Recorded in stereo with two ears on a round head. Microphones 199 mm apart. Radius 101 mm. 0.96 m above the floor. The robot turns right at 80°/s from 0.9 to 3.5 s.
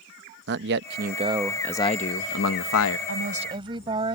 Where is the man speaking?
55° right; by 3.0 s 115° left.